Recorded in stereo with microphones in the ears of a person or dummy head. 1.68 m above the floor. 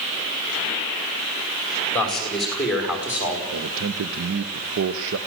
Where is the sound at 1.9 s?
15° left (ahead or behind), 5 m; by 3.4 s 5° right (ahead or behind), 5.5 m.